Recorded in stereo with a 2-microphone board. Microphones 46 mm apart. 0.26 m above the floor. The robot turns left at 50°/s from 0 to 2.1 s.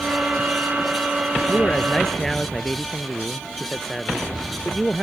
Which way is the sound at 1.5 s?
35° left.